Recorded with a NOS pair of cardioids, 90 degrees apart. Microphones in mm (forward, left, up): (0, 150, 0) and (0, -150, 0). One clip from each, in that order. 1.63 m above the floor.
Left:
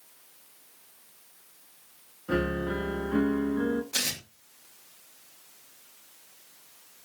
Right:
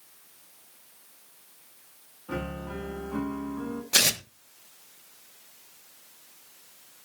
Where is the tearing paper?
50° right, 2.0 m.